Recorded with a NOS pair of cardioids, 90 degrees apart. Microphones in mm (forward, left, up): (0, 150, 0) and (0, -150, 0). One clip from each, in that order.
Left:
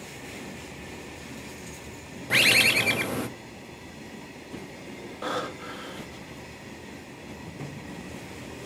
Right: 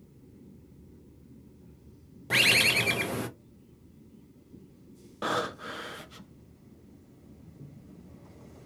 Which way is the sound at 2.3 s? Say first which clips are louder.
Left 3 dB; 10° left.